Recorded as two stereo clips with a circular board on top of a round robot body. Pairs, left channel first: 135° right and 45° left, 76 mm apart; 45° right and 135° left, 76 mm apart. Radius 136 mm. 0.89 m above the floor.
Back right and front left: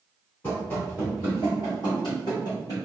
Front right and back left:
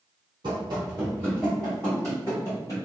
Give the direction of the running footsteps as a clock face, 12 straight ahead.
7 o'clock.